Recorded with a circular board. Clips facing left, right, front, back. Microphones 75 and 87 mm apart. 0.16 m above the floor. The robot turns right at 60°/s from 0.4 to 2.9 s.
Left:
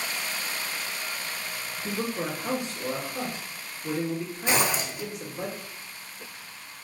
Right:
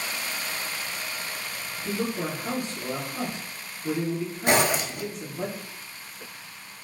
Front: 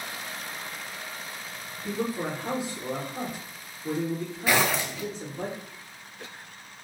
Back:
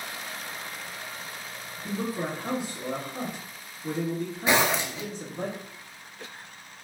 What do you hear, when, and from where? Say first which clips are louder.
1.8 s a man speaking: right 2 dB, front 1 dB; 105° left, 1.9 m; by 5.5 s 170° left, 1.9 m
4.5 s a zipper: right 4 dB, back 1 dB; 115° right, 0.6 m